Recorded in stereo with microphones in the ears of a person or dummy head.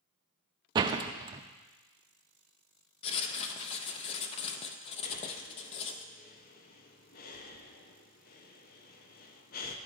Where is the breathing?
40° left (ahead or behind), 0.6 m.